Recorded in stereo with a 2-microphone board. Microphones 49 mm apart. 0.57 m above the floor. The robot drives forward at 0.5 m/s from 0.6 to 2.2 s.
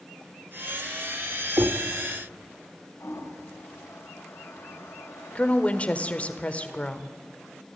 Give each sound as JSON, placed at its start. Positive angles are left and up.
{"t": 1.6, "sound": "knocking", "side_deg": -55, "distance_m": 1.8}
{"t": 3.0, "sound": "a toilet flushing", "side_deg": 65, "distance_m": 3.5}
{"t": 5.3, "sound": "a woman speaking", "side_deg": 30, "distance_m": 1.7}